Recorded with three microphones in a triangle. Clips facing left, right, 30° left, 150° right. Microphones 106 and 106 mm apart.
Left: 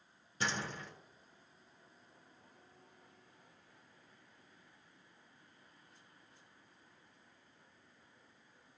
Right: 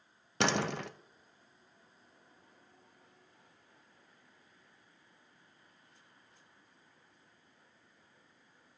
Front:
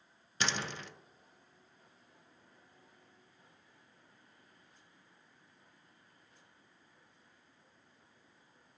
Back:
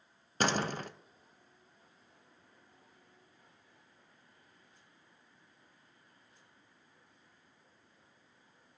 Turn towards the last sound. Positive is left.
turn(degrees=-105)